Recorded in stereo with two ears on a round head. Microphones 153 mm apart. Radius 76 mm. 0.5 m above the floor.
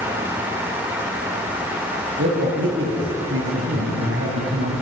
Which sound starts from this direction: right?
A man speaking, at 2.2 s.